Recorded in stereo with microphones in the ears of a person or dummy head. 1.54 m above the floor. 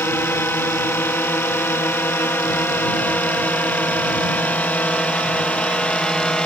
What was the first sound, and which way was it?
A drone, 15° left (ahead or behind).